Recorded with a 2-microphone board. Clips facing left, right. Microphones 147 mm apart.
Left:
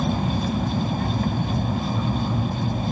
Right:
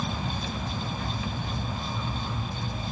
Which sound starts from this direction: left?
An aircraft, at 0.0 s.